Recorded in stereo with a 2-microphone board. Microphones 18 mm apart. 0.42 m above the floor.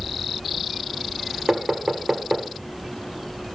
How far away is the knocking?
About 1.0 m.